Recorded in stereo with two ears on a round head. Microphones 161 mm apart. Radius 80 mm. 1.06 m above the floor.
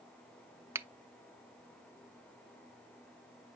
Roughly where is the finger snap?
Centre.